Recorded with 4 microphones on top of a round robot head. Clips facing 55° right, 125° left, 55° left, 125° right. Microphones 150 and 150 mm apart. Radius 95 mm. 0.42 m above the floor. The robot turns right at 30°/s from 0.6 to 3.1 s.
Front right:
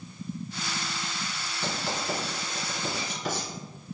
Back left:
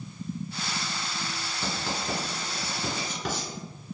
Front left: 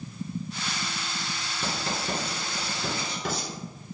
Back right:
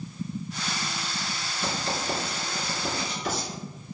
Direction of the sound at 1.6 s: 55° left.